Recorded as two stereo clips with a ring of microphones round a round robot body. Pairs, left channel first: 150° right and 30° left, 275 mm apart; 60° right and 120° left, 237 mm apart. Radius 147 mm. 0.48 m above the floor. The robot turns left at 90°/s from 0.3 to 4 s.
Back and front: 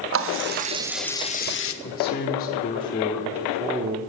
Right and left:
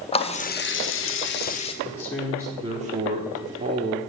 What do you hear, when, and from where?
0.1 s a running tap: straight ahead, 0.7 m; by 1.7 s 125° right, 0.7 m
1.8 s a man speaking: 120° right, 1.0 m; by 4.0 s 50° left, 1.0 m